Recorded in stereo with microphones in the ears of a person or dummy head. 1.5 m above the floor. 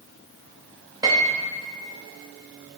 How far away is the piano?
About 0.7 m.